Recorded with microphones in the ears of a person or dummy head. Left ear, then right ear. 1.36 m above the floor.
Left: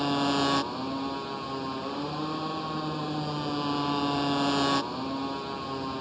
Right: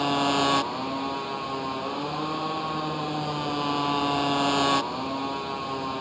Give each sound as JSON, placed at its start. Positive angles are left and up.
{"t": 0.0, "sound": "a motorcycle", "side_deg": -25}